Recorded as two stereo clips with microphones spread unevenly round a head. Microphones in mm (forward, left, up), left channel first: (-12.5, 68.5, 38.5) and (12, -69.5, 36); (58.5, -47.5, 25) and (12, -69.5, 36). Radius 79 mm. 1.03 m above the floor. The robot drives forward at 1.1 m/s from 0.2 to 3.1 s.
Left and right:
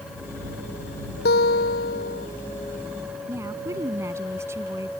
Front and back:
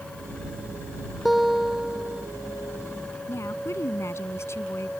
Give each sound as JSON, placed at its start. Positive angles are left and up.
{"t": 1.2, "sound": "a guitar", "azimuth_deg": 115}
{"t": 3.3, "sound": "a woman speaking", "azimuth_deg": -5}